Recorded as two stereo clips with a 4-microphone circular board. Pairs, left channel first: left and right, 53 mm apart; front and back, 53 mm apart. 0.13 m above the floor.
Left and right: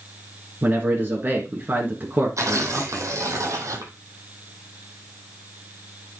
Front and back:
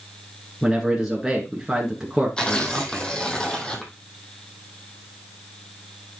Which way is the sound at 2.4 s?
75° right.